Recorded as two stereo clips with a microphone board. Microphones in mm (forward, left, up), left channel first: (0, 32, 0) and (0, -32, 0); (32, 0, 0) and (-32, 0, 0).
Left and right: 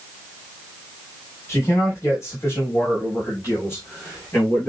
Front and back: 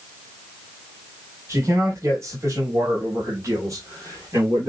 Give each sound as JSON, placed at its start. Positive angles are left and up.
{"t": 1.5, "sound": "a man speaking", "azimuth_deg": 135, "distance_m": 4.5}